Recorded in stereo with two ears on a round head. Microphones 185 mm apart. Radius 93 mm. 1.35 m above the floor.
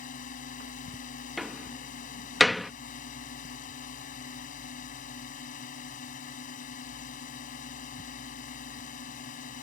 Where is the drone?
40° left (ahead or behind).